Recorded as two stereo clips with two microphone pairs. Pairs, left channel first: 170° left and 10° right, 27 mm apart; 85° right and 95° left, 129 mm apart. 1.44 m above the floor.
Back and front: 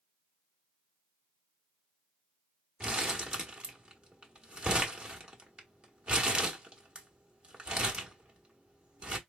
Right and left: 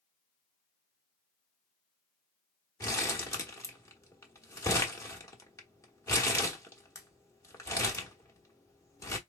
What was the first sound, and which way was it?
Crumpling, 35° right.